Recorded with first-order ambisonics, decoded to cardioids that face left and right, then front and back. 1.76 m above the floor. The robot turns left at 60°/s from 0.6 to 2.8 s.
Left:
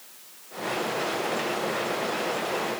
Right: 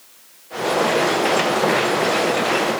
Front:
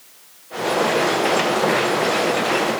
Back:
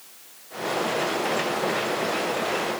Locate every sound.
Only background noise.